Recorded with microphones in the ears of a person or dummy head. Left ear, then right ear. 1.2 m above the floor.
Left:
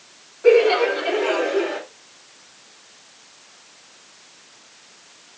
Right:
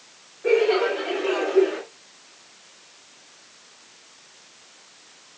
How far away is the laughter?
About 6 m.